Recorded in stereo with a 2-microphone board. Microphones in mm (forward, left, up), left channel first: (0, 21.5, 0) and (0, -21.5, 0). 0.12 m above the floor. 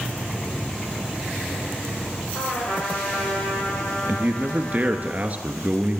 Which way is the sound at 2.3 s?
65° left (ahead or behind).